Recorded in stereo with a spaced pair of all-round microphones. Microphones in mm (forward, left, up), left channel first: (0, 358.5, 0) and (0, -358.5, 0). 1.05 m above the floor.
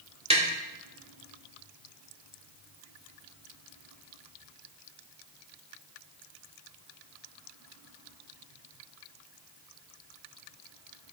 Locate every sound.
0.3 s tapping: 10° right (ahead or behind), 1.9 m